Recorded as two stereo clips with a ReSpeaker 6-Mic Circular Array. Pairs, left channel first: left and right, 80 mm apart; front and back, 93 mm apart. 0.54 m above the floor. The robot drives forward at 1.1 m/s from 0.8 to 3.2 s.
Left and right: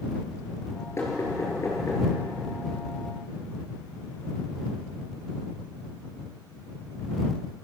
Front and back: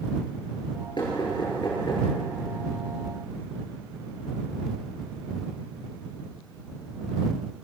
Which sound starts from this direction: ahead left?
Knocking, at 1.0 s.